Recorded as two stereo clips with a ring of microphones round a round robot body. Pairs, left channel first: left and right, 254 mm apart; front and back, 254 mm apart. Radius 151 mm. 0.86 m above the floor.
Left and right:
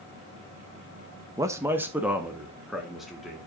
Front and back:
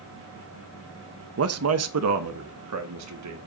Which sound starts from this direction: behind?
A man speaking, at 1.4 s.